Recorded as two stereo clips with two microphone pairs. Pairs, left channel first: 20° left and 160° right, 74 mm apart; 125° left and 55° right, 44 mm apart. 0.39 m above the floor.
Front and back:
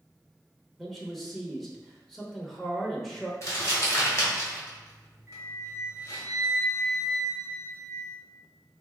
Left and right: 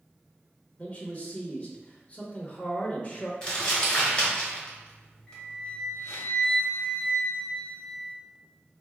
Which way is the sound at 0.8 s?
105° left.